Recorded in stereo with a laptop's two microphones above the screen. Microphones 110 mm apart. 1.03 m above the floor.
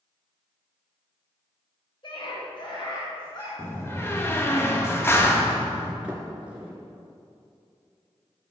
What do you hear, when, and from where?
2.0 s a scream: 50° left (ahead or behind), 4 m; by 3.5 s 40° left (ahead or behind), 5 m
3.6 s a door slam: 25° left (ahead or behind), 0.8 m
6.0 s a sliding door: 10° right (ahead or behind), 2.5 m